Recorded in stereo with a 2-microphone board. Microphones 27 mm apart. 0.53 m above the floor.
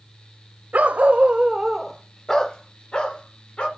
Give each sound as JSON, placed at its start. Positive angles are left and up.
{"t": 0.7, "sound": "a dog barking", "side_deg": -70, "distance_m": 0.7}